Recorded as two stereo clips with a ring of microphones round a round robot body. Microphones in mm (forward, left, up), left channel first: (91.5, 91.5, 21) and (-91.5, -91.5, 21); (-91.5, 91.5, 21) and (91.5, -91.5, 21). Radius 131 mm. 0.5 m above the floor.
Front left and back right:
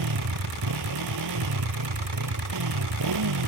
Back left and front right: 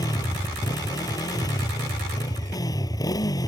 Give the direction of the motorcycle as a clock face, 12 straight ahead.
5 o'clock.